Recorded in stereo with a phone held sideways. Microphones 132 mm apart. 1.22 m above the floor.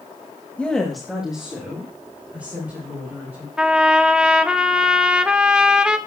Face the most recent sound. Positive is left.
turn(degrees=-5)  # may be behind; listen again after turning